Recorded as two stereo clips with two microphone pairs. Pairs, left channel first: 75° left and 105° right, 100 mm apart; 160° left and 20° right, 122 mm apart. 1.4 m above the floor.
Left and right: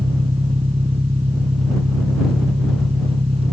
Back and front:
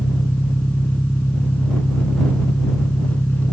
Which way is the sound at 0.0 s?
125° right.